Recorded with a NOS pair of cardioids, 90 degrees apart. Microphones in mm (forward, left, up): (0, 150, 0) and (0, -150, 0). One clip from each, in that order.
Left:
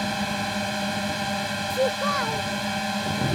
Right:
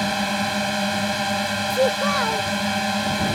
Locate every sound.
0.0 s a drone: 35° right
1.7 s a child speaking: 30° right